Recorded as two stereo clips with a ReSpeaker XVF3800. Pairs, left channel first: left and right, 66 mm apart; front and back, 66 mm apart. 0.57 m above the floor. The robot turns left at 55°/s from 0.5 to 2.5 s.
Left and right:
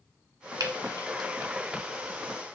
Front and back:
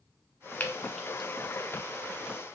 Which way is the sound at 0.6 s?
65° right.